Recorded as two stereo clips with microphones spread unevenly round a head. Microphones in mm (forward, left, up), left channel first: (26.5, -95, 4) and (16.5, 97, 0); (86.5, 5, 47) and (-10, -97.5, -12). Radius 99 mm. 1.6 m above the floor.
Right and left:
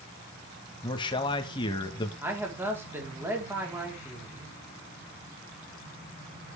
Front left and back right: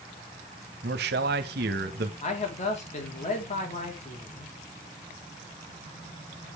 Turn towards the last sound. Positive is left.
turn(degrees=15)